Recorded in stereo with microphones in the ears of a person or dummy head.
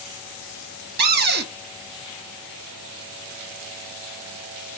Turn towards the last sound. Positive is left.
turn(degrees=-45)  # may be behind; listen again after turning